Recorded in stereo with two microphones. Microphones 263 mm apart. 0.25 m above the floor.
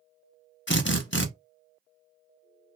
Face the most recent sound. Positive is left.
turn(degrees=50)  # may be behind; listen again after turning